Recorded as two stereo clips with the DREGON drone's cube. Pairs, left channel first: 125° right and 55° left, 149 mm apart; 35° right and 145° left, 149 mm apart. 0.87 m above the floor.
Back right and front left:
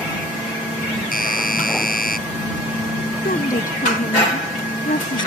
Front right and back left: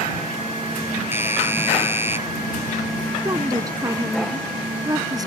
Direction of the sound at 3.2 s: 150° right.